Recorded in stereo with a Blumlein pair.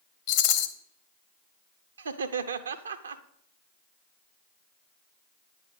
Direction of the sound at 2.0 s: 70° right.